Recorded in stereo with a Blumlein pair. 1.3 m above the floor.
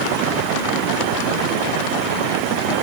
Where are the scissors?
I don't hear scissors.